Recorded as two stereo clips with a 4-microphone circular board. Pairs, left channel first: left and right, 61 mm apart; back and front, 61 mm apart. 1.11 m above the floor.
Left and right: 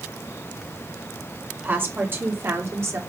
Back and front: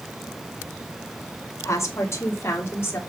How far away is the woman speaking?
About 2.5 m.